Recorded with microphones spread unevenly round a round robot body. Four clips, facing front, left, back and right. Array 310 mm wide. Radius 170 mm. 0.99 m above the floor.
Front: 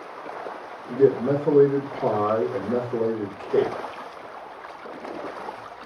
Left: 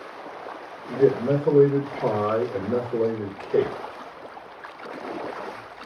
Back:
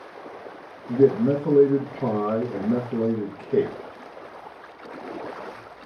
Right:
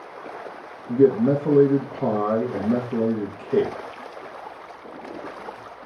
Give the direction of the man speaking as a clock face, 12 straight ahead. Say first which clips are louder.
Right 3 dB, back 1 dB; 4 o'clock.